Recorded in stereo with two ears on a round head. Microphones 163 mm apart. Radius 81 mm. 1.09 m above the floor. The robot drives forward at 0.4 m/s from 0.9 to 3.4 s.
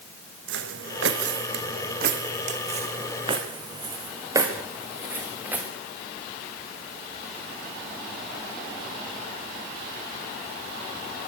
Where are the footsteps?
70° right (ahead or behind), 3.5 m; by 5.7 s 10° right (ahead or behind), 6.5 m.